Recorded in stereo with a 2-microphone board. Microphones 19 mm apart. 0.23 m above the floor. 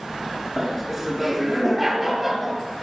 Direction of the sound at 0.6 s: 25° right (ahead or behind).